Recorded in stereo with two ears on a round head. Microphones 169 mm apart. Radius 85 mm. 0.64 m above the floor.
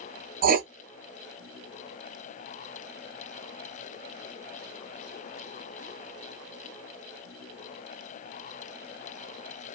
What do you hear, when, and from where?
0.4 s writing: 50° right (ahead or behind), 0.5 m